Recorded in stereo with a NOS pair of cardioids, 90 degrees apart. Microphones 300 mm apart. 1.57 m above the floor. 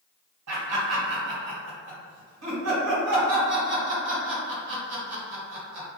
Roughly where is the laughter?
Ahead right.